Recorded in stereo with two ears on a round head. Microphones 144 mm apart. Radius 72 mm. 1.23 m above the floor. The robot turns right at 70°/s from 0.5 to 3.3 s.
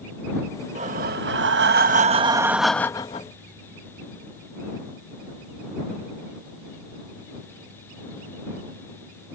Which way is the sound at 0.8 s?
135° right.